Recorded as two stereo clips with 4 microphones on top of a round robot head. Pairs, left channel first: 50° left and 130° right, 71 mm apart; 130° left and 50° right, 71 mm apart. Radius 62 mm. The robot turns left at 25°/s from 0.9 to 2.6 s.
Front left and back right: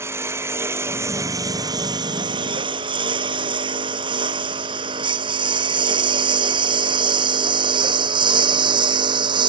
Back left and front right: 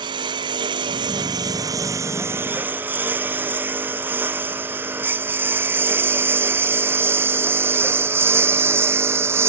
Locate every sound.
0.0 s a lawn mower: 75° right; by 9.5 s 110° right